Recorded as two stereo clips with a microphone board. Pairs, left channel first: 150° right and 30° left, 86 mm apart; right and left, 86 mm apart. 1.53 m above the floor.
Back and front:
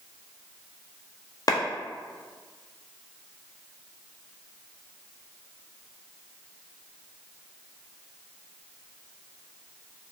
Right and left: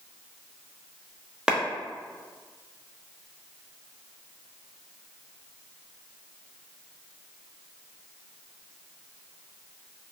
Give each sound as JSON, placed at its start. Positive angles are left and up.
{"t": 1.5, "sound": "a clap", "azimuth_deg": 170, "distance_m": 0.6}